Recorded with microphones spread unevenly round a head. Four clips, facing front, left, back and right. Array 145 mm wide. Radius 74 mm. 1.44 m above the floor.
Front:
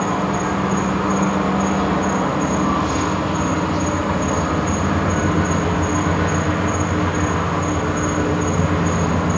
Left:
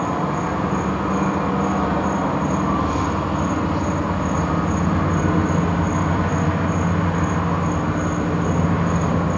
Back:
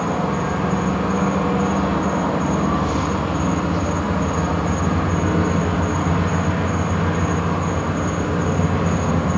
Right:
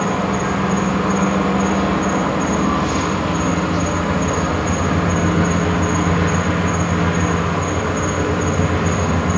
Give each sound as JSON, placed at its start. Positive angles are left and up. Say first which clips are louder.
{"t": 0.0, "sound": "an insect", "louder": "right 3 dB, front 1 dB", "azimuth_deg": -75, "distance_m": 4.5}